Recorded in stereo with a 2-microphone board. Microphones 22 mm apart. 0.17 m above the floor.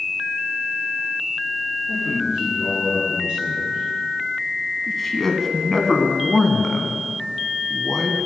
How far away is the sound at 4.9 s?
About 1.2 m.